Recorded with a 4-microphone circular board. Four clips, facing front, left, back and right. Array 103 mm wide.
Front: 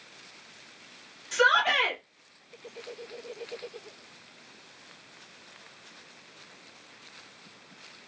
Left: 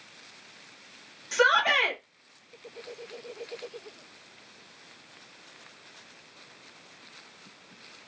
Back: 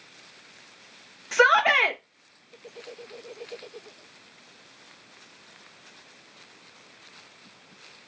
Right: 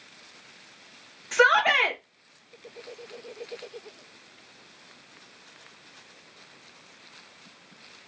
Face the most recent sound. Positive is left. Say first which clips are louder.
# right 3 dB, back 4 dB
turn(degrees=-155)